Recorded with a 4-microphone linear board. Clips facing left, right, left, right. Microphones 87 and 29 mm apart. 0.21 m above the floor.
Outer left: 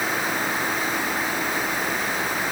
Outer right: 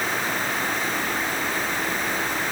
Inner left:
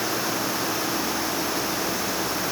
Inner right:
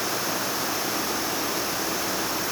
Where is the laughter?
No laughter in this recording.